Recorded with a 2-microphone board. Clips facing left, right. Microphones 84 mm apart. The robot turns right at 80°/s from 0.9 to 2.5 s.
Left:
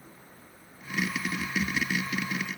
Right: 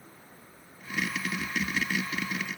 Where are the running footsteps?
No running footsteps in this recording.